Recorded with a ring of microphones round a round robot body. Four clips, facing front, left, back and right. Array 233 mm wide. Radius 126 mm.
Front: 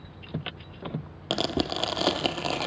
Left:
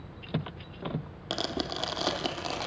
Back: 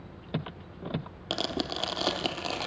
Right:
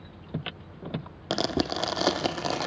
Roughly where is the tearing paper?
Ahead right.